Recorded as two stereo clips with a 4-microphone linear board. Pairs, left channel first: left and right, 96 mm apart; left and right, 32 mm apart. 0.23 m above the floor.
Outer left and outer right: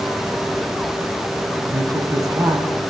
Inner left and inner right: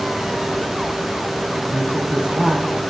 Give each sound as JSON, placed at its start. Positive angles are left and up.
{"t": 1.6, "sound": "a woman speaking", "side_deg": -35, "distance_m": 2.0}